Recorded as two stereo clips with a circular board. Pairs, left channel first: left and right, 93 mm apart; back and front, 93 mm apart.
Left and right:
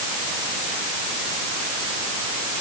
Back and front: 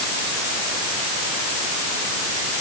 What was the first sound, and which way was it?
Only background noise.